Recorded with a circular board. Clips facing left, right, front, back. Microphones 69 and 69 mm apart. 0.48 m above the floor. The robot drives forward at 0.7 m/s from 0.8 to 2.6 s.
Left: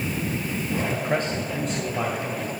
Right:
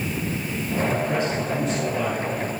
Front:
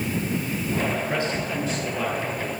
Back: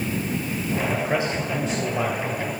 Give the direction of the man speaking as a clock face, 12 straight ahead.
8 o'clock.